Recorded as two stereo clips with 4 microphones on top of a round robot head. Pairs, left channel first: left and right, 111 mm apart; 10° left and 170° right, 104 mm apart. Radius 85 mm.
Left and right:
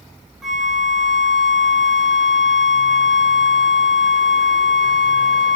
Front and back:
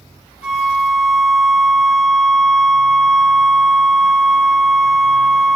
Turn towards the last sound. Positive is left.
turn(degrees=0)